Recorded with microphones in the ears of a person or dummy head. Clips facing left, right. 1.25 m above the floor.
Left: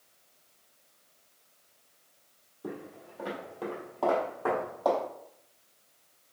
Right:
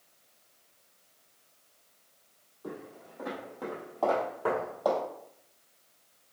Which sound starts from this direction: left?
Footsteps, at 2.6 s.